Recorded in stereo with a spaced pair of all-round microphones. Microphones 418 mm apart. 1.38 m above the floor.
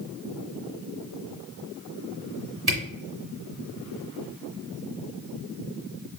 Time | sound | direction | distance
2.7 | a camera shutter | 60° right (ahead or behind) | 2 m